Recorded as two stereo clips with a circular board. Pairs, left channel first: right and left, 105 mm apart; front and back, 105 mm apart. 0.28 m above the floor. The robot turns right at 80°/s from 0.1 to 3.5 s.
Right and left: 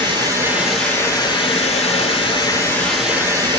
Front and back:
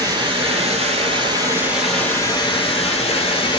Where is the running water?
130° left, 0.9 m; by 3.6 s 40° left, 0.9 m.